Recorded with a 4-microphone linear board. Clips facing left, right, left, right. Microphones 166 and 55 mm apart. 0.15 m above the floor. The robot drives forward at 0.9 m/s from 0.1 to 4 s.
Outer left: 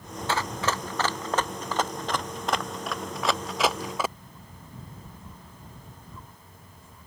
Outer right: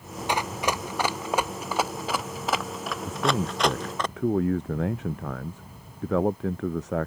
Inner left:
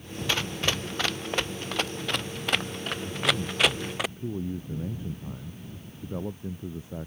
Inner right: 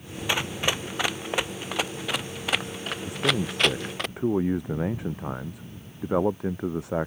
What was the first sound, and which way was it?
Running footsteps, 15° right (ahead or behind).